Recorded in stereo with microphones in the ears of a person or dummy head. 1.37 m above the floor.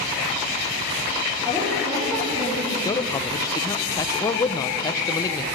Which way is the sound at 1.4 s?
10° right (ahead or behind).